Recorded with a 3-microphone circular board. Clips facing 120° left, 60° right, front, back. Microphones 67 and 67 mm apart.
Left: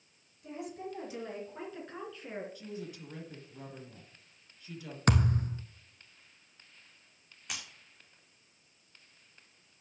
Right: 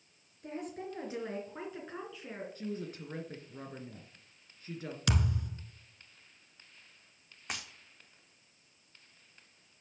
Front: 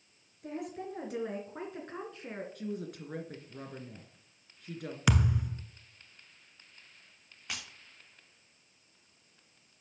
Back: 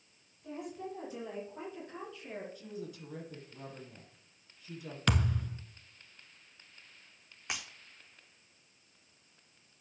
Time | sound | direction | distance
0.4 | a woman speaking | 20° right | 3.5 m
2.5 | a woman speaking | 15° right | 2.5 m
5.1 | a thud | 80° left | 0.9 m
7.5 | breaking glass | 110° right | 3 m